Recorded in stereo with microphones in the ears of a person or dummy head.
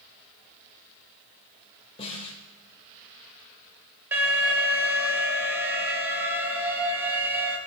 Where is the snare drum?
25° left (ahead or behind), 1.6 m.